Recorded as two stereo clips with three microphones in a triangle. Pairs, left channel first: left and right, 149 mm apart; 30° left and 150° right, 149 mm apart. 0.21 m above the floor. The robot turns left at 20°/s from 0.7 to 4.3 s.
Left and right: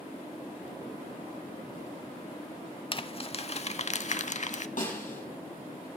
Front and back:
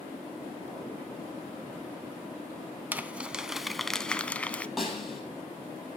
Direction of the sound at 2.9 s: 135° left.